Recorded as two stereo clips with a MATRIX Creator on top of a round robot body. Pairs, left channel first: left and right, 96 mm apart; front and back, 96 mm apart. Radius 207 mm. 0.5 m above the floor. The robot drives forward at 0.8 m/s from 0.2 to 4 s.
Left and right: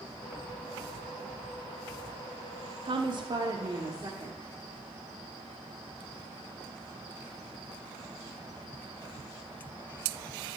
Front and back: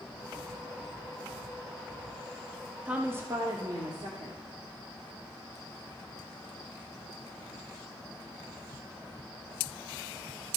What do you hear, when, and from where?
2.9 s a woman speaking: 100° right, 1.1 m; by 4.4 s 140° right, 1.5 m